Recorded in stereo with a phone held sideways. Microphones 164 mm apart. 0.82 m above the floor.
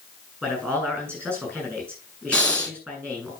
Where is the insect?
No insect in this recording.